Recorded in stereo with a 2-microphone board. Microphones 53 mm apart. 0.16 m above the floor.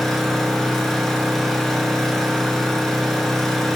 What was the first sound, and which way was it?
An engine running, 10° left (ahead or behind).